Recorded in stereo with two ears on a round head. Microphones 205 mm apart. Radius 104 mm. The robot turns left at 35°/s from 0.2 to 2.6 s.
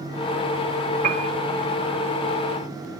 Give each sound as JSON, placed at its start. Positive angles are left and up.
{"t": 1.0, "sound": "a piano", "side_deg": -45, "distance_m": 1.0}